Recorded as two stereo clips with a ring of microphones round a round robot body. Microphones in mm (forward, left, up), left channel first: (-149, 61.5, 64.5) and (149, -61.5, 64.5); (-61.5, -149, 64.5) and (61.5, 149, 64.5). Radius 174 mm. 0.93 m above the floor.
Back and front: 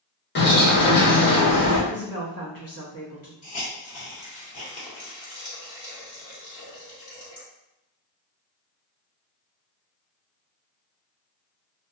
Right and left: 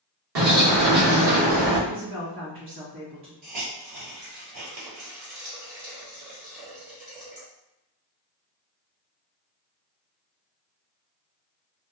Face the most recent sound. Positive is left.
turn(degrees=90)